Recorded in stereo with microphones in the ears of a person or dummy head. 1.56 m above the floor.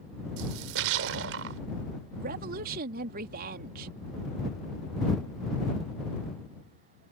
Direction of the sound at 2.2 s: 55° right (ahead or behind).